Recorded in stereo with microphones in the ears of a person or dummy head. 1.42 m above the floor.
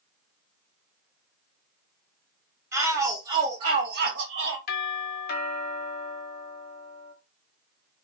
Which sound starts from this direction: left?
A doorbell, at 4.7 s.